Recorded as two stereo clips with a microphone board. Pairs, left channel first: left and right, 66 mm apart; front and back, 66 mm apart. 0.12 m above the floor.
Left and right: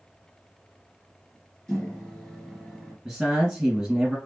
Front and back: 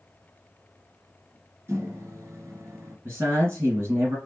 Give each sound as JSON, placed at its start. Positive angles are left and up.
{"t": 1.7, "sound": "a microwave", "azimuth_deg": 170, "distance_m": 1.6}
{"t": 3.0, "sound": "a man speaking", "azimuth_deg": -165, "distance_m": 2.5}